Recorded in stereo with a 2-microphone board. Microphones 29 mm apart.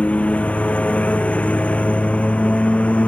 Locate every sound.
0.0 s a lawn mower: 50° left (ahead or behind)